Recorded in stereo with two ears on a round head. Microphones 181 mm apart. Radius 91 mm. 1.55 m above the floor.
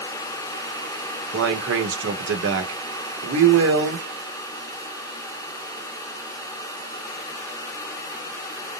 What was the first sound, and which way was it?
A man speaking, 70° right (ahead or behind).